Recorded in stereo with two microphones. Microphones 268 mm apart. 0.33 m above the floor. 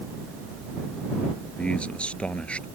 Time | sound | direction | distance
1.6 | a man speaking | 5° left (ahead or behind) | ?